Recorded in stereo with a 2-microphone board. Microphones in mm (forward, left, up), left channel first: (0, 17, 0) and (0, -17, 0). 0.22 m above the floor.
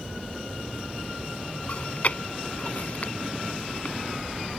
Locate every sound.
1.7 s chewing: 50° left (ahead or behind)